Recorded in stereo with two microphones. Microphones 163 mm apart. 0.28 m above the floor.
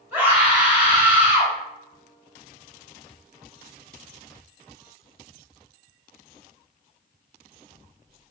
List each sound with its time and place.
0.1 s a scream: 10° right (ahead or behind), 1.6 m